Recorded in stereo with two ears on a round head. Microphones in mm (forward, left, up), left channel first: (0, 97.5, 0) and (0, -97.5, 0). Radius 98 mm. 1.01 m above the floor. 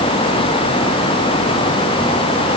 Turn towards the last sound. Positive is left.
No sound to turn to.